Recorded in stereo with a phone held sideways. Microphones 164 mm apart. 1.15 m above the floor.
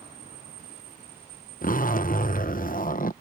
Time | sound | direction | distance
1.6 | a zipper | 55° left (ahead or behind) | ?